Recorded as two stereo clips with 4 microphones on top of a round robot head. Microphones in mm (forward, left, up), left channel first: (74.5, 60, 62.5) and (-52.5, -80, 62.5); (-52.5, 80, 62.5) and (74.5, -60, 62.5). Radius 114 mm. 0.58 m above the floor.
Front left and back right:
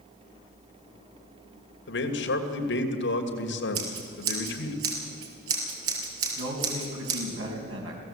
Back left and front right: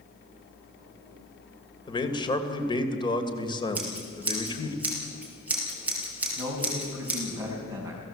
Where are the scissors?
130° right, 4.5 m.